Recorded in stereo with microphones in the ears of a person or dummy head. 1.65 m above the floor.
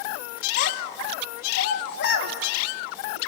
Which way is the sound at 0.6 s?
50° left (ahead or behind).